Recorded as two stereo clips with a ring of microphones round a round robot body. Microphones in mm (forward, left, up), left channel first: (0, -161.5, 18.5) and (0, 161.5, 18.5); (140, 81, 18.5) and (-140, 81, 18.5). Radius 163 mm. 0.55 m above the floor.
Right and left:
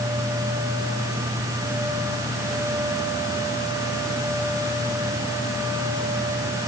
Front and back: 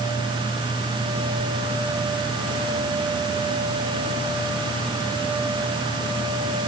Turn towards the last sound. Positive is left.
No sound to turn to.